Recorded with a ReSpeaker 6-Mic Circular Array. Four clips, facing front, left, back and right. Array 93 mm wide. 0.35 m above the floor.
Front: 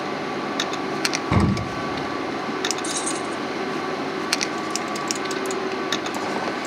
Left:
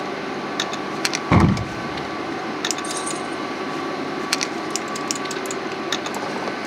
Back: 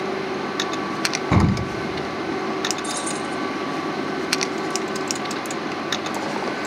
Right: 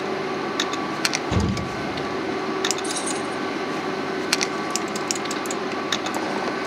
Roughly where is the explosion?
Left.